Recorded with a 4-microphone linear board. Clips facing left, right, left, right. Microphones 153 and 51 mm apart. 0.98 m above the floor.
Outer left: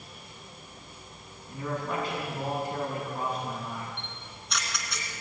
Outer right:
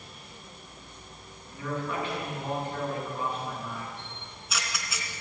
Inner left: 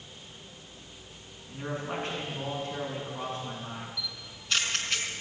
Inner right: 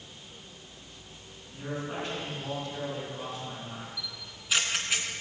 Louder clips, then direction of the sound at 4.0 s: Even, inner left 1 dB; 5° right (ahead or behind).